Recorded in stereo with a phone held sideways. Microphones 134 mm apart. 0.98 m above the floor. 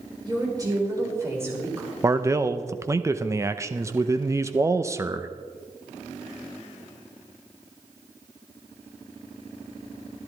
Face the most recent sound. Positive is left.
turn(degrees=-20)  # may be behind; listen again after turning